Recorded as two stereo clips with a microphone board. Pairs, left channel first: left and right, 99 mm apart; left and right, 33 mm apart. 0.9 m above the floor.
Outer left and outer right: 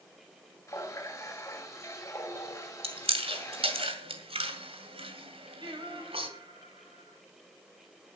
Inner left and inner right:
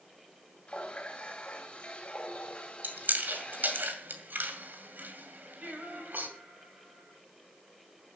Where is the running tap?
30° left (ahead or behind), 3.5 m.